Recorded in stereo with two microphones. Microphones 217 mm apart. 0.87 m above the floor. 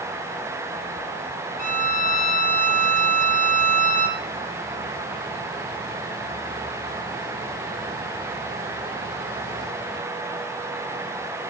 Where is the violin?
35° left (ahead or behind), 0.9 m.